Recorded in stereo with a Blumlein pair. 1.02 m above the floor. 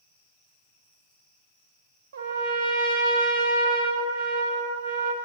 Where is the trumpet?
55° right, 1.3 m.